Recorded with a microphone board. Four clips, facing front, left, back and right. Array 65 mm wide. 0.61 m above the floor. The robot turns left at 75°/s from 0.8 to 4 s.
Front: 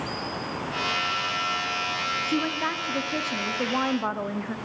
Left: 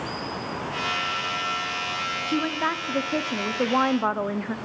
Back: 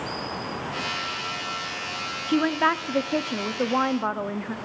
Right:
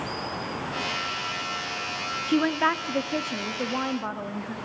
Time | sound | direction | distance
2.3 | a woman speaking | 130° right | 0.6 m